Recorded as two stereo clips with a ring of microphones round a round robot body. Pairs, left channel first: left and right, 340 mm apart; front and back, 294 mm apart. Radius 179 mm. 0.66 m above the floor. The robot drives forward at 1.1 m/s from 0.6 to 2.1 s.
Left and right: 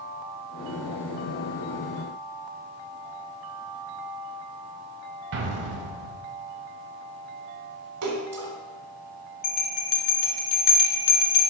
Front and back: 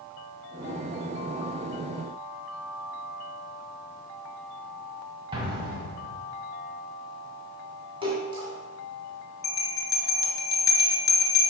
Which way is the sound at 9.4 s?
80° left.